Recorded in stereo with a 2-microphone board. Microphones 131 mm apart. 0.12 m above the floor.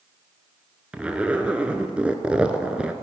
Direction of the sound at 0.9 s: 10° right (ahead or behind).